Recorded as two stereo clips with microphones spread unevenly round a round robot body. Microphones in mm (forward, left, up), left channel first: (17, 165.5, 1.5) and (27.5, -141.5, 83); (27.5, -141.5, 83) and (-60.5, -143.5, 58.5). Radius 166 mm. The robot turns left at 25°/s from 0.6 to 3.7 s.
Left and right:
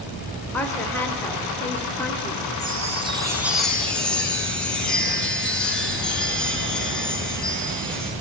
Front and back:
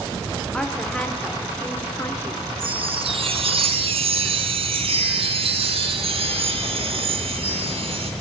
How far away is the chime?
About 1.9 m.